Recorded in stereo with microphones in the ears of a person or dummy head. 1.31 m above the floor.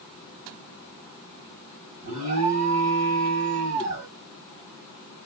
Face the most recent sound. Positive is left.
turn(degrees=-40)  # may be behind; listen again after turning